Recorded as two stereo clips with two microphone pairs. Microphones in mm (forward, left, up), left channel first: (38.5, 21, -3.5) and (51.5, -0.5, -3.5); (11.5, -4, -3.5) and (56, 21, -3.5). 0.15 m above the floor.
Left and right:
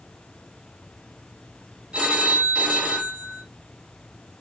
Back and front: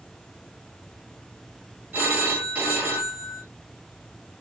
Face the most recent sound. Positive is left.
turn(degrees=-20)